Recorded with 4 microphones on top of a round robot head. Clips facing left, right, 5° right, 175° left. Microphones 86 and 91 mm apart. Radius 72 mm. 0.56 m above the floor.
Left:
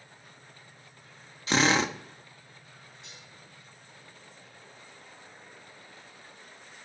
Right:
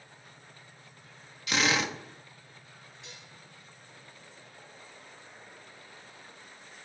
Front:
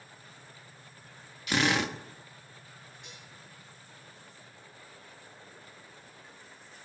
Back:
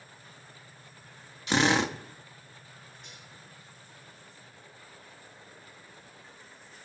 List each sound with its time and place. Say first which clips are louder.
1.5 s a drill: left 4 dB, back 3 dB; 130° left, 1.6 m
3.0 s dishes clattering: right 1 dB, even; 45° right, 9 m